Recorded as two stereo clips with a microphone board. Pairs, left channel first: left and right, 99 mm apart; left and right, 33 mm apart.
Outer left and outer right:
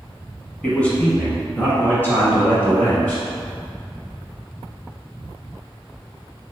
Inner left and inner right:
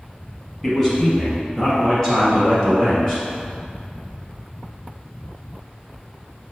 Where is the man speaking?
15° left (ahead or behind), 1.1 m; by 3.2 s 20° left (ahead or behind), 2.5 m.